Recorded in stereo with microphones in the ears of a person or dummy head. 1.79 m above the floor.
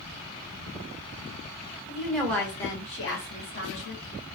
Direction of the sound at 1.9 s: 10° right (ahead or behind).